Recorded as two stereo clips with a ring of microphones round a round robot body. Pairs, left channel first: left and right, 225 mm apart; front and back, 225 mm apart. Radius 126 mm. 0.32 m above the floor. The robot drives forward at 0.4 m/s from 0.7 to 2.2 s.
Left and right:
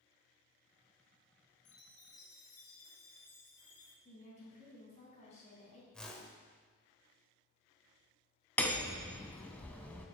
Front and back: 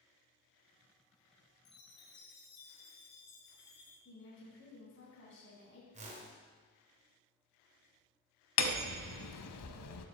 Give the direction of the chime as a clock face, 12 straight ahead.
11 o'clock.